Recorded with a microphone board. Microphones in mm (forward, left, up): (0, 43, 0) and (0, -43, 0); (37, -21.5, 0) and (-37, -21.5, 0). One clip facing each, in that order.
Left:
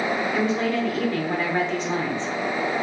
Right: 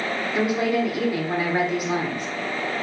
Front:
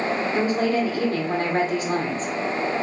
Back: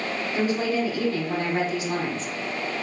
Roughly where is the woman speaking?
Ahead.